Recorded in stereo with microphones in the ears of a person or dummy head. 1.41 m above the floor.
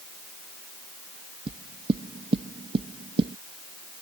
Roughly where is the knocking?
Right.